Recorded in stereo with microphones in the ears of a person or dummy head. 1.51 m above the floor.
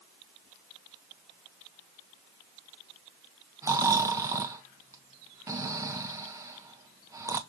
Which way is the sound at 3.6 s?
15° right (ahead or behind).